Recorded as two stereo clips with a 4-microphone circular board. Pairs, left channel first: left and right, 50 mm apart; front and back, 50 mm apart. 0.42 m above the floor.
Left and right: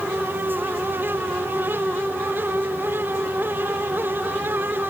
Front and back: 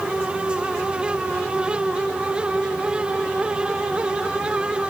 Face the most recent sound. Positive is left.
No sound to turn to.